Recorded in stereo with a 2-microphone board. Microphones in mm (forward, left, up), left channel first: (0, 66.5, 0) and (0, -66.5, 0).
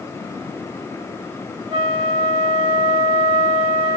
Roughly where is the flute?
Right.